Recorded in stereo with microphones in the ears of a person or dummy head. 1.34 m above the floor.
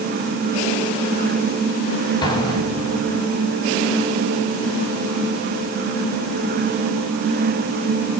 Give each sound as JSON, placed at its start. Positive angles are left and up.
{"t": 2.2, "sound": "an explosion", "side_deg": 25, "distance_m": 2.5}